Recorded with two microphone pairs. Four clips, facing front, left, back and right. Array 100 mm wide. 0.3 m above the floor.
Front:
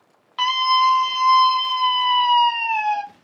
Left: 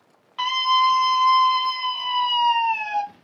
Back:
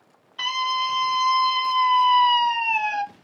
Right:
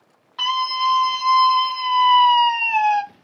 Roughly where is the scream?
Ahead.